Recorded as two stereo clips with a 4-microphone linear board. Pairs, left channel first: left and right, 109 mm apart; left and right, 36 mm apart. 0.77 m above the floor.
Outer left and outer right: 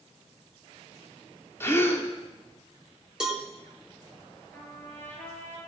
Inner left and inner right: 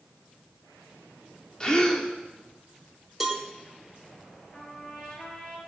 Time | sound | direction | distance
1.6 | a gasp | 20° left (ahead or behind) | 2 m
3.2 | a cowbell | 5° right (ahead or behind) | 2.5 m
4.5 | a trumpet | 15° left (ahead or behind) | 4.5 m